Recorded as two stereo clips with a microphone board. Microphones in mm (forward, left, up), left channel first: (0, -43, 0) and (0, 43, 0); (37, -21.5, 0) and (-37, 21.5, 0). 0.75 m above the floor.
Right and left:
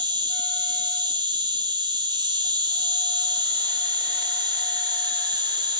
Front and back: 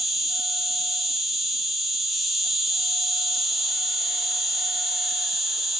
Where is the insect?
65° left, 1.4 m.